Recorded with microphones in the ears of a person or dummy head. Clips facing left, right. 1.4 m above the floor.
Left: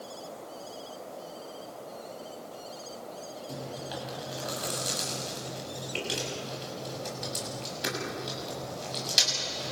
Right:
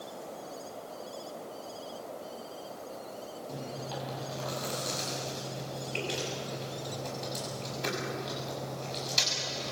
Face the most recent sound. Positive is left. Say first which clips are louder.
# left 1 dB
turn(degrees=10)  # may be behind; listen again after turning